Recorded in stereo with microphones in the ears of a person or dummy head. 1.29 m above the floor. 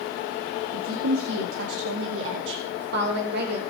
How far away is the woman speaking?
About 1.7 m.